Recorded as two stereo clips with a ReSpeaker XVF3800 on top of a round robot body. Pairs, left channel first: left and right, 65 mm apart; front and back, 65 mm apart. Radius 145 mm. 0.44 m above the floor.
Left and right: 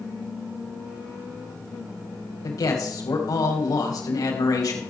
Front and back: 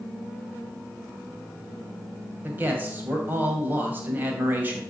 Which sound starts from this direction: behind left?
A man speaking, at 2.4 s.